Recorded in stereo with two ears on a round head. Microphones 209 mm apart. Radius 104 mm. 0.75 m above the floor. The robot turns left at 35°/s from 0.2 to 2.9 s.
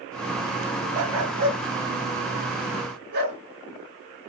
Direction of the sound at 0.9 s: 65° right (ahead or behind).